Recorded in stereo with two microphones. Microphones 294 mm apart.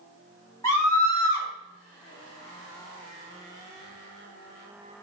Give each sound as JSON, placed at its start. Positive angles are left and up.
{"t": 0.6, "sound": "a scream", "side_deg": 10, "distance_m": 1.7}